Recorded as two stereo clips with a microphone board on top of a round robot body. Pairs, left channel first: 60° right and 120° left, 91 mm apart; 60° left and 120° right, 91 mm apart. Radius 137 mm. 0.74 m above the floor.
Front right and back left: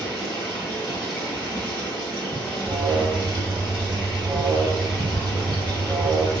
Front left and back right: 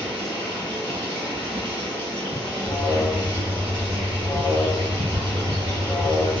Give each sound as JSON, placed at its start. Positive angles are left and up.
{"t": 0.0, "sound": "running water", "azimuth_deg": -75, "distance_m": 0.7}
{"t": 2.6, "sound": "an alarm", "azimuth_deg": 70, "distance_m": 0.9}